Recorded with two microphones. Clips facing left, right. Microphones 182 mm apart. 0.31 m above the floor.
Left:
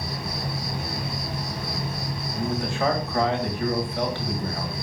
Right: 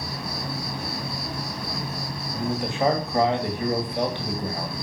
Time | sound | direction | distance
0.0 | an insect | 20° left (ahead or behind) | 2.5 m
2.3 | a man speaking | 15° right (ahead or behind) | 2 m